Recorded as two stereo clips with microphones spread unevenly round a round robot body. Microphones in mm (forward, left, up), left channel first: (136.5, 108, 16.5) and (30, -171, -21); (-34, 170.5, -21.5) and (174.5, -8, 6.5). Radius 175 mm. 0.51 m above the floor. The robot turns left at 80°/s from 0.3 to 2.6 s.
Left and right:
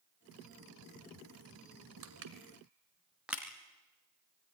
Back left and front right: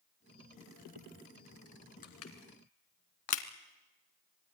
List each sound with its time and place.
2.0 s crushing: 155° right, 1.5 m; by 3.4 s 160° left, 1.5 m